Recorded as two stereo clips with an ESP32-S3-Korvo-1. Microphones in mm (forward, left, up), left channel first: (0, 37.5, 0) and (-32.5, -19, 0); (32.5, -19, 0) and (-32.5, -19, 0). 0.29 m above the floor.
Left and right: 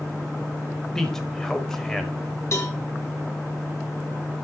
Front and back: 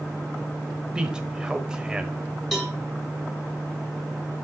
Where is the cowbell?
90° left, 2 m.